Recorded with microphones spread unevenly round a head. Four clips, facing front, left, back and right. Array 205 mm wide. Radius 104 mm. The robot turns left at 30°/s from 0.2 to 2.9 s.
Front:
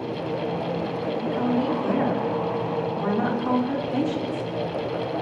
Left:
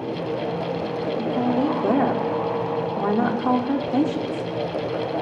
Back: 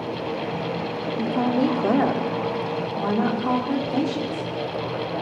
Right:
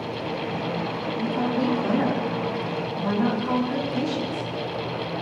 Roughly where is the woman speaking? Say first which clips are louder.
Left 2 dB, back 3 dB; behind left.